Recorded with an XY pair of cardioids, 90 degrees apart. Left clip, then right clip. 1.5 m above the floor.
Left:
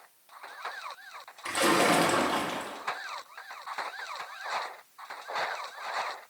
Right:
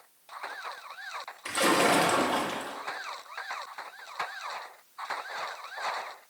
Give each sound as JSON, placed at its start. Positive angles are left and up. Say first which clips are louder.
{"t": 1.4, "sound": "a splash", "louder": "even", "azimuth_deg": -10, "distance_m": 0.8}